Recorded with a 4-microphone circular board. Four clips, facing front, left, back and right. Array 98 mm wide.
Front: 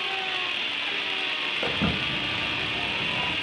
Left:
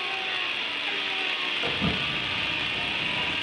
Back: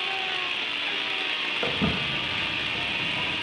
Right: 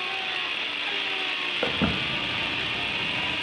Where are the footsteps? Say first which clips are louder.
Right 4 dB, even; 95° right, 1.7 m; by 3.3 s 5° right, 1.8 m.